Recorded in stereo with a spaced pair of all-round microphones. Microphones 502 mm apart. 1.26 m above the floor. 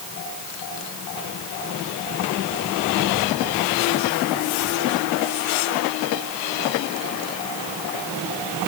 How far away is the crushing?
I don't hear crushing.